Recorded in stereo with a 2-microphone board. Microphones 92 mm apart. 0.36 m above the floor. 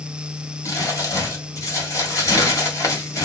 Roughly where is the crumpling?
Left.